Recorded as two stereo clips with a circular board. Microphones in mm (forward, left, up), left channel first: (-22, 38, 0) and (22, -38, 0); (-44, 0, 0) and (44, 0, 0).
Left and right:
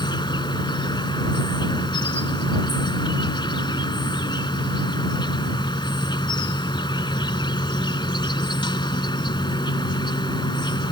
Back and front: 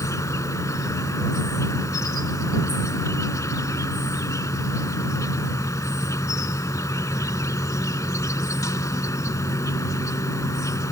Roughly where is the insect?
Behind left.